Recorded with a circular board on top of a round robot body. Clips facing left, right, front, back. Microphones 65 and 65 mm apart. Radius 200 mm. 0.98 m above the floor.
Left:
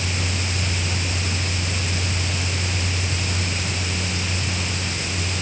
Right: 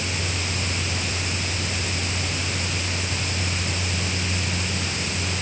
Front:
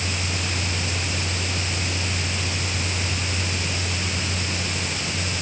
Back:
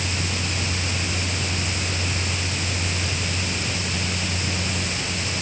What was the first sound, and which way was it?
Only background noise.